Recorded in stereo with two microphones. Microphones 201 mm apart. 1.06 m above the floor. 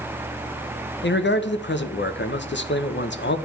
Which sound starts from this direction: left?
A man speaking, at 1.0 s.